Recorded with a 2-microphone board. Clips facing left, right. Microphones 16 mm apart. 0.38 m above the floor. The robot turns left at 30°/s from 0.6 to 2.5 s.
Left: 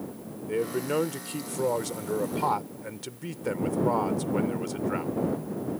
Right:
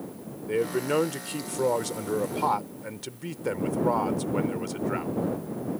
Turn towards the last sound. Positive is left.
turn(degrees=-10)  # may be behind; listen again after turning